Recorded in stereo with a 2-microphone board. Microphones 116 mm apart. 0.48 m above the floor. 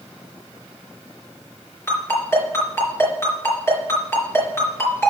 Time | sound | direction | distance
1.9 | a ringtone | 25° left (ahead or behind) | 4 m